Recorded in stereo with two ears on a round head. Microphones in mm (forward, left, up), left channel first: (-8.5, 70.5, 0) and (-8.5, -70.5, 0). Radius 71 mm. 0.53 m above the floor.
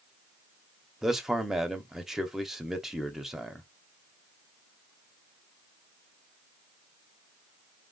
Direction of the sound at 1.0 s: Centre (ahead or behind).